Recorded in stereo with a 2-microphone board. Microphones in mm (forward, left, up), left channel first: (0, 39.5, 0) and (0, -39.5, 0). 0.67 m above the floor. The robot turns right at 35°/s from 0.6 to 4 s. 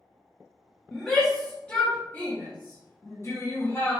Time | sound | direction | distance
0.9 | a shout | 5° right (ahead or behind) | 1.0 m